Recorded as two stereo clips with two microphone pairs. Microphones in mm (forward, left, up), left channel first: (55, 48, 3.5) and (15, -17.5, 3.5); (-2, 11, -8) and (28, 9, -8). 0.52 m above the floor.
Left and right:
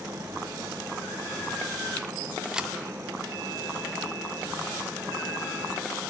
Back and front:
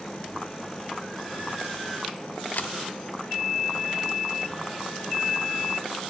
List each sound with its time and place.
2.5 s a camera shutter: 155° left, 0.7 m